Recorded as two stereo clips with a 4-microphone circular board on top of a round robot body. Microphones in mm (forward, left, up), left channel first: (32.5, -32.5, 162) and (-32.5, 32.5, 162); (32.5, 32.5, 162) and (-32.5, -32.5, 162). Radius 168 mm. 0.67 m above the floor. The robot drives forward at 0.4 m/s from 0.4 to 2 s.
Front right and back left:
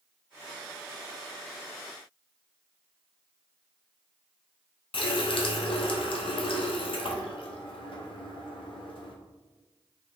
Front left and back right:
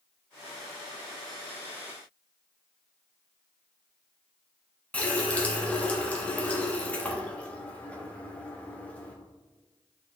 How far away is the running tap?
About 0.7 m.